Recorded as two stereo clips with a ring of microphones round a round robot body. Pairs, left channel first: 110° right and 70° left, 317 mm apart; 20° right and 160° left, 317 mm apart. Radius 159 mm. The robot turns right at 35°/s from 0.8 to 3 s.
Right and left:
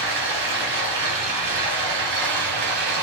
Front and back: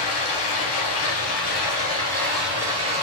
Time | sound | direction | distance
0.0 | running water | 10° left | 3 m